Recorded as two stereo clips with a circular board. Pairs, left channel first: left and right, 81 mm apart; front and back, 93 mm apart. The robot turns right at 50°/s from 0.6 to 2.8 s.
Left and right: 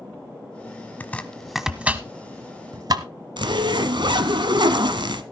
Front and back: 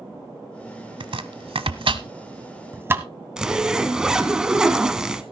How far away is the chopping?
About 0.9 m.